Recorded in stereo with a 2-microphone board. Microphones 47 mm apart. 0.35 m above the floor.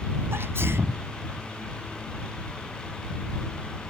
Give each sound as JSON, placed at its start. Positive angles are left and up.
{"t": 0.3, "sound": "a sneeze", "side_deg": -65}